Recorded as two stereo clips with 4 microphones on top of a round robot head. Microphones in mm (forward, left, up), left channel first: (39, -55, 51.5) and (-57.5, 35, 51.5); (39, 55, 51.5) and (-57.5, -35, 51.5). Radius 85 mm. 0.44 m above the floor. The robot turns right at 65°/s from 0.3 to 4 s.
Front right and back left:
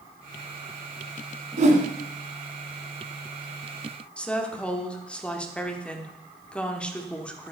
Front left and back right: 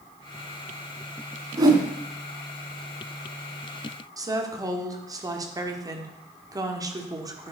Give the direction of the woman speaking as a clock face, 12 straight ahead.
4 o'clock.